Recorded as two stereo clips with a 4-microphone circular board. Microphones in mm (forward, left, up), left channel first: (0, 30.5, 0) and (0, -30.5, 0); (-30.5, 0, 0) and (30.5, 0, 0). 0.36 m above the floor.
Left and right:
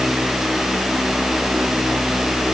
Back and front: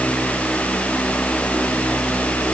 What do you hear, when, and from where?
Only background noise.